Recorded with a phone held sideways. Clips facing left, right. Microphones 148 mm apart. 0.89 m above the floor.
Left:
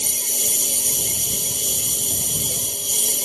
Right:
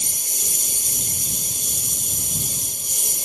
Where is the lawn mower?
75° left (ahead or behind).